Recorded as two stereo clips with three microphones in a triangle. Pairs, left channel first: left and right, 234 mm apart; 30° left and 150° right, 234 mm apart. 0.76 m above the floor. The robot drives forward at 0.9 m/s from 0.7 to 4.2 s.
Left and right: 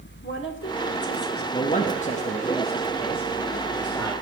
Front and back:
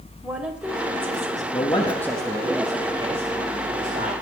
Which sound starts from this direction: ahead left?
A man speaking, at 1.5 s.